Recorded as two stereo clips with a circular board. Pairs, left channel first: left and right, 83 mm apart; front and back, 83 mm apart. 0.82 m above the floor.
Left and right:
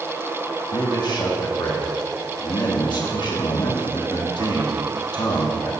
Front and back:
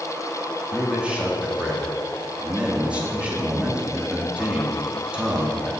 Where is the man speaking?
105° left, 1.4 m.